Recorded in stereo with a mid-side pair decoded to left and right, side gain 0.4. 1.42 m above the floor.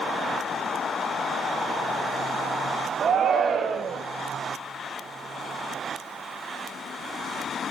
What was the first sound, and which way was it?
A shout, 60° right.